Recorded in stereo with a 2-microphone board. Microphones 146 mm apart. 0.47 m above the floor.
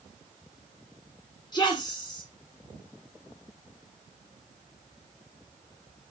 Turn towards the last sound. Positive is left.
turn(degrees=30)  # may be behind; listen again after turning